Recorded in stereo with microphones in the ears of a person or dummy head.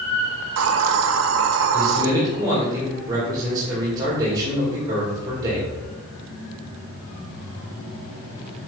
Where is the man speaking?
25° right (ahead or behind), 2 m.